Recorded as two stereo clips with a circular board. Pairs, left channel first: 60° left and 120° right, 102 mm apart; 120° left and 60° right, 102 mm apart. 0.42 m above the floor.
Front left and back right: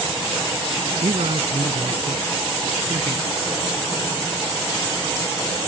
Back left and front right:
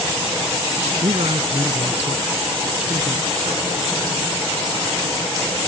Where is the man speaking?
95° right.